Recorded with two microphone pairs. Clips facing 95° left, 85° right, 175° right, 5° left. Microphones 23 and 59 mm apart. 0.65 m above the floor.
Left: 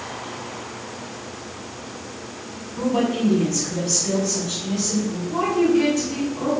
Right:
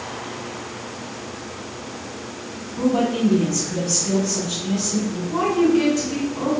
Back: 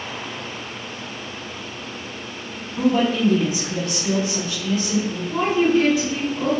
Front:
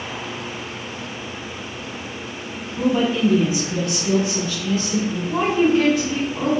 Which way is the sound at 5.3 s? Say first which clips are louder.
Right 1 dB, even; 5° right.